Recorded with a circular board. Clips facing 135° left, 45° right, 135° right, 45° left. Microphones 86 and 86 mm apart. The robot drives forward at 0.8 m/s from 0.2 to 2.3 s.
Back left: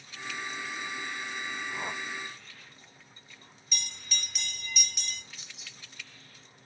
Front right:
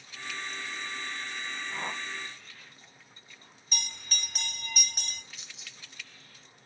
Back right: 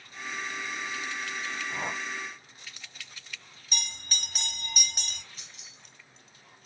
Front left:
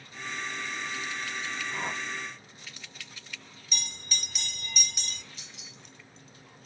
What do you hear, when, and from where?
1.7 s a whoosh: 130° right, 2.5 m; by 2.0 s 135° right, 2.5 m
3.7 s a bell: 95° right, 1.0 m
5.4 s keys jangling: 175° left, 2.5 m